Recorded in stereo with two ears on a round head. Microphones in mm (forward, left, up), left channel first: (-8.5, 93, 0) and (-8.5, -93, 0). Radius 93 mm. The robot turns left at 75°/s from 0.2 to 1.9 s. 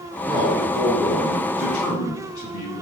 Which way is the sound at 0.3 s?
150° right.